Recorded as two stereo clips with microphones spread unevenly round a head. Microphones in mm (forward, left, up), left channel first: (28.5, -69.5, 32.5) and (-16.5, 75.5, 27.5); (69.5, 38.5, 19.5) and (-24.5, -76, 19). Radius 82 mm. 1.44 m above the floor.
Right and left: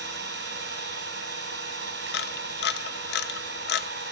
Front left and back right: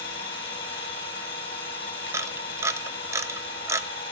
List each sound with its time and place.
0.0 s an engine running: 105° left, 2.5 m
2.1 s a camera shutter: 55° right, 0.6 m